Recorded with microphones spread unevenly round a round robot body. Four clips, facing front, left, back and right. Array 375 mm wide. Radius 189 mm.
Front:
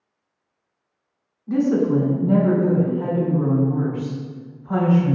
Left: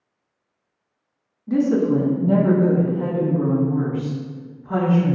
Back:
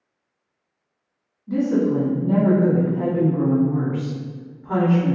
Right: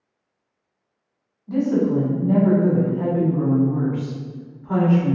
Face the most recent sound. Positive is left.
turn(degrees=-160)